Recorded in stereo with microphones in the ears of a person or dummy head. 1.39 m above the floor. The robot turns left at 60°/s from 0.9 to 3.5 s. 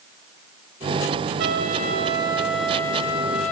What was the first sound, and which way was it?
A trumpet, 105° right.